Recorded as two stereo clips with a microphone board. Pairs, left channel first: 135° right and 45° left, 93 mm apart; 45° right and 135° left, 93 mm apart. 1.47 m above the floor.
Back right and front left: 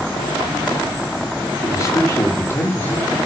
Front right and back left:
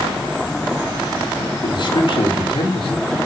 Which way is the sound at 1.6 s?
85° right.